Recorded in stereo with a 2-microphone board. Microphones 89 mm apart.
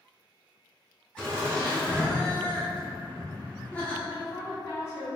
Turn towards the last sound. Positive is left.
turn(degrees=30)  # may be behind; listen again after turning